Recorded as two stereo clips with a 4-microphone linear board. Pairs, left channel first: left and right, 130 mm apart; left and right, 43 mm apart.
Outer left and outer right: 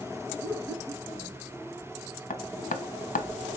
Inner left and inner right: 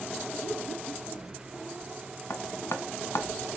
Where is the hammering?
70° left (ahead or behind), 0.7 m.